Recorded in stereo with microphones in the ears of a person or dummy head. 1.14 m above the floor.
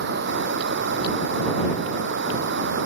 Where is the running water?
70° right (ahead or behind).